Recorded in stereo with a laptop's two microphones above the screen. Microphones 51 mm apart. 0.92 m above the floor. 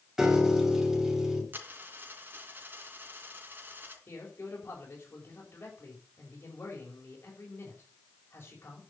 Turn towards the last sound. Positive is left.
turn(degrees=45)  # may be behind; listen again after turning